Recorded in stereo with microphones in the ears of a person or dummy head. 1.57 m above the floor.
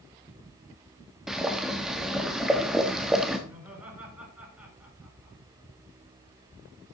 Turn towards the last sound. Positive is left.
turn(degrees=-10)  # may be behind; listen again after turning